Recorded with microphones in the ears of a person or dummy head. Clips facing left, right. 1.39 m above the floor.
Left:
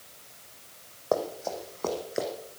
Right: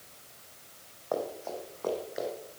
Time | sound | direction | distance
1.1 | running footsteps | 40° left (ahead or behind) | 3 m